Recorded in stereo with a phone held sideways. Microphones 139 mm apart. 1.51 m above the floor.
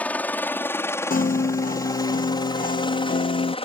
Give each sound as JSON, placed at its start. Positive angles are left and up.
{"t": 0.0, "sound": "a helicopter", "side_deg": 10}
{"t": 1.1, "sound": "a piano", "side_deg": 85}